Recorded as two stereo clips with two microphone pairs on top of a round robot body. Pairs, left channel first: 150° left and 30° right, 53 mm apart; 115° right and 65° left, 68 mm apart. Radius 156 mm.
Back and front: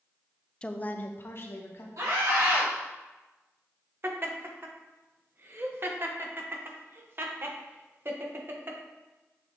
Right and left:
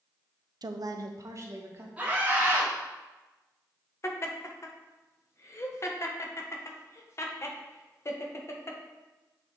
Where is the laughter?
70° right, 1.1 m.